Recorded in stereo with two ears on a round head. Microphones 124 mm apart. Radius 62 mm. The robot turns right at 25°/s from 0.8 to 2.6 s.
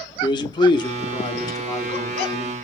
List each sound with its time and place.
0.2 s a man speaking: 105° left, 0.8 m; by 2.5 s 150° left, 0.8 m